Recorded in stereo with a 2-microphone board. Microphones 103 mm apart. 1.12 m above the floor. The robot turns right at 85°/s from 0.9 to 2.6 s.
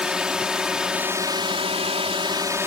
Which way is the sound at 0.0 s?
170° right.